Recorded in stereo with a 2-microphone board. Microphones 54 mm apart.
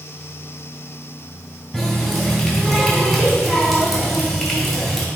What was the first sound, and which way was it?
A running tap, centre (ahead or behind).